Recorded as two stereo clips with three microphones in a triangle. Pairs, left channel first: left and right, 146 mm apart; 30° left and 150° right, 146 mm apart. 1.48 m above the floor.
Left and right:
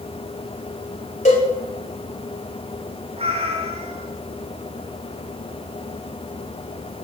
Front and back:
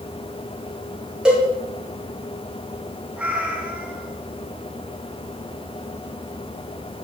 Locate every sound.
1.2 s a cowbell: 125° left, 3.5 m
3.2 s a cat meowing: 70° right, 1.9 m